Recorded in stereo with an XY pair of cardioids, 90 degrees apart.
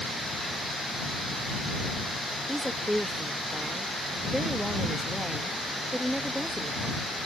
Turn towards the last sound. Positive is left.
turn(degrees=-5)